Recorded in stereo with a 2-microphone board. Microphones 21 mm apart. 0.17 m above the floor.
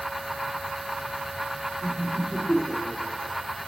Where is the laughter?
50° left (ahead or behind), 3.5 m.